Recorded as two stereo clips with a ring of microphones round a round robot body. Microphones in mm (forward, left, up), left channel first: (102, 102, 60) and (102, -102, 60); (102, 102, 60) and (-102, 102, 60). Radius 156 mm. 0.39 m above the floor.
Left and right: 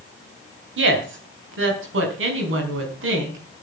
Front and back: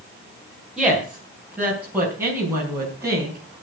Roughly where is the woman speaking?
Right.